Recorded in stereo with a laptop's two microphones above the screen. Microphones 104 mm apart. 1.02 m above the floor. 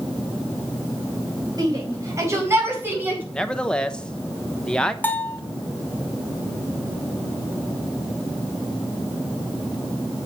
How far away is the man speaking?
About 1.0 m.